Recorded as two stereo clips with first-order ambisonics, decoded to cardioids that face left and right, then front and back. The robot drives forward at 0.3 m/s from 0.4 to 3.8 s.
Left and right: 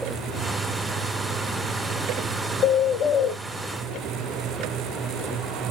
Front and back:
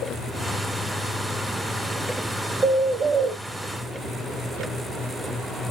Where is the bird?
130° left, 1.2 m; by 3.4 s 140° left, 1.3 m.